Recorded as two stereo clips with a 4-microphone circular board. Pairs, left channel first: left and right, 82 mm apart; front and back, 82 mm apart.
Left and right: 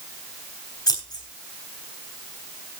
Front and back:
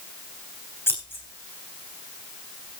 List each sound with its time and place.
0.9 s scissors: 60° left, 3.5 m